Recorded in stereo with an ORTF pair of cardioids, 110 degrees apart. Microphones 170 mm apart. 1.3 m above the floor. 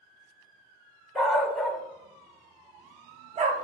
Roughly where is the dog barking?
Ahead.